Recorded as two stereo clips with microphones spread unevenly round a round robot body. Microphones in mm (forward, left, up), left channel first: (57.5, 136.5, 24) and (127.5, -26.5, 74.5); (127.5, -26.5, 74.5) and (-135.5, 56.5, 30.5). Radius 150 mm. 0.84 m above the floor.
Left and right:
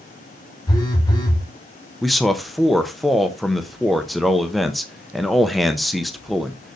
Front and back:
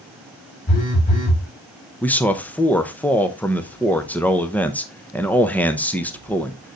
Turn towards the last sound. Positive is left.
turn(degrees=85)